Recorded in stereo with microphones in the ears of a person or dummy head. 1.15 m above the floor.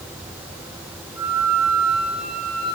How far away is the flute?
About 10 m.